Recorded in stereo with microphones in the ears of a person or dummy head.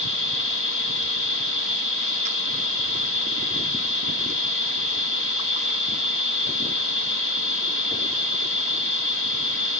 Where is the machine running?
60° left (ahead or behind), 2.5 m.